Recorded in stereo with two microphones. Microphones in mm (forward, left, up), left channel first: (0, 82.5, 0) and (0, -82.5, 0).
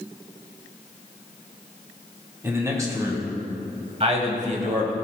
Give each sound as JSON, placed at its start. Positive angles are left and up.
{"t": 2.4, "sound": "a man speaking", "side_deg": -15, "distance_m": 1.9}